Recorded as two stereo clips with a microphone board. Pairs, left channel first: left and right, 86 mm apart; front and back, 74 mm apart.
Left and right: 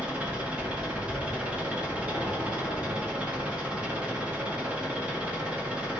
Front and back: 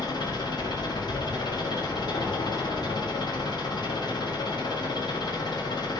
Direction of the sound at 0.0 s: 15° right.